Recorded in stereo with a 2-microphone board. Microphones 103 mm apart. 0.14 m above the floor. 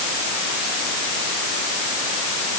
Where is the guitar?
No guitar in this recording.